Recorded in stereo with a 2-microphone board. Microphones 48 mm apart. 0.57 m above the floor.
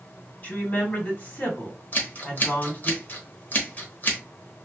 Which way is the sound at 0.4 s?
40° left (ahead or behind).